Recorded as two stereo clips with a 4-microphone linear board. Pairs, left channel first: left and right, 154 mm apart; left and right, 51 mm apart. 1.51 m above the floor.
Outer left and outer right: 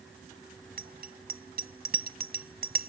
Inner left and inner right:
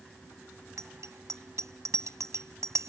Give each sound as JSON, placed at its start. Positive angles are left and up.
{"t": 0.8, "sound": "a bicycle bell", "side_deg": -80}